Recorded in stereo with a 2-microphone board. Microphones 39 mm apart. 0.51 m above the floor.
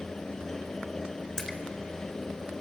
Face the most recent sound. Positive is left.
turn(degrees=15)  # may be behind; listen again after turning